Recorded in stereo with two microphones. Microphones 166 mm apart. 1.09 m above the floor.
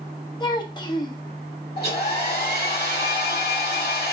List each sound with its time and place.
0.4 s a child speaking: 25° left (ahead or behind), 0.7 m
1.8 s a hair dryer: 65° left (ahead or behind), 1.4 m